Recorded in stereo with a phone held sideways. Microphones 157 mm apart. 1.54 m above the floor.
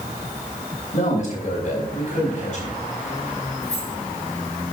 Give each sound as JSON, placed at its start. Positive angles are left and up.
{"t": 0.9, "sound": "a man speaking", "side_deg": 70, "distance_m": 2.5}
{"t": 3.6, "sound": "keys jangling", "side_deg": 50, "distance_m": 4.0}